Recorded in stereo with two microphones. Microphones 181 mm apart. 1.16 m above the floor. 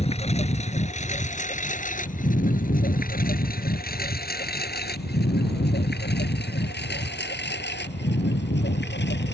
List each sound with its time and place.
0.0 s a lawn mower: 35° left (ahead or behind); by 9.3 s 80° left